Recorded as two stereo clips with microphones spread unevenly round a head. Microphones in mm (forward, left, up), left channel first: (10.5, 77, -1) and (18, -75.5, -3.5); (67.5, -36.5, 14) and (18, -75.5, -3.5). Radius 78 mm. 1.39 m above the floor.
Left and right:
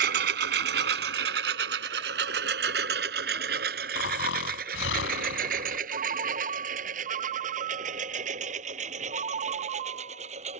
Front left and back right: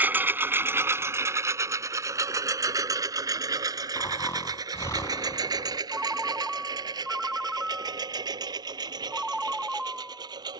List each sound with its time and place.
0.0 s a lawn mower: 75° right; by 10.6 s 140° right
4.0 s snoring: 105° left
5.9 s a ringtone: 55° right